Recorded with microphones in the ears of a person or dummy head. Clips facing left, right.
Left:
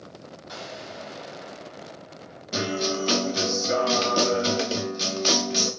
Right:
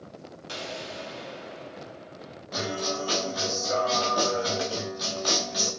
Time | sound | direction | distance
0.5 | an explosion | 40° right (ahead or behind) | 1.4 m
2.5 | a guitar | 30° left (ahead or behind) | 0.9 m